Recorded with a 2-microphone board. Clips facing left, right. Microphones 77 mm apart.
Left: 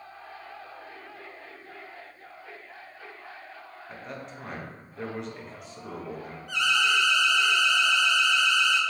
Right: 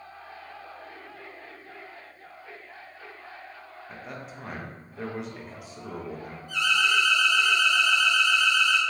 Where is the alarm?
70° left (ahead or behind), 0.7 m.